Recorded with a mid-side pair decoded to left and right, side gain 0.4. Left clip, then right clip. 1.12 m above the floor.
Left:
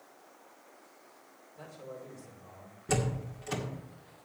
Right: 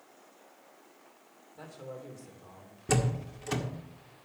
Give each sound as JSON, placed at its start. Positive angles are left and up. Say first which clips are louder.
{"t": 1.6, "sound": "a man speaking", "louder": "right 1 dB", "azimuth_deg": -45, "distance_m": 4.0}
{"t": 2.9, "sound": "a door slam", "louder": "right 2 dB", "azimuth_deg": -35, "distance_m": 1.8}